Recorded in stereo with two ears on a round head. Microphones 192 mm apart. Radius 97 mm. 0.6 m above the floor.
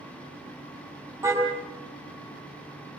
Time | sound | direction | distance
1.2 | a car horn | 10° right (ahead or behind) | 7.5 m